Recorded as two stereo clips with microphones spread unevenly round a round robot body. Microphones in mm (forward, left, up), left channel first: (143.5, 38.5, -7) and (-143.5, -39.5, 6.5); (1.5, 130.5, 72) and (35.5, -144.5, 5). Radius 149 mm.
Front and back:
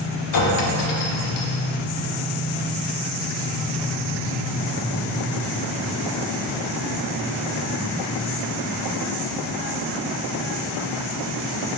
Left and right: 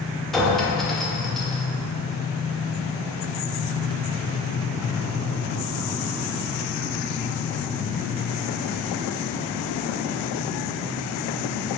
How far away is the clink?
About 1.1 m.